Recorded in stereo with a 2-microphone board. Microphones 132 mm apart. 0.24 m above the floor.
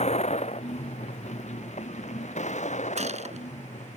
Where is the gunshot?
60° right (ahead or behind).